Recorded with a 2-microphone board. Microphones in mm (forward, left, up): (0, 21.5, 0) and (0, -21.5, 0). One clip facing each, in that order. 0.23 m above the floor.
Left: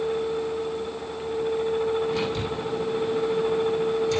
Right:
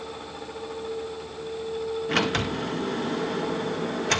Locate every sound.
2.1 s a sliding door: 70° right (ahead or behind), 0.8 m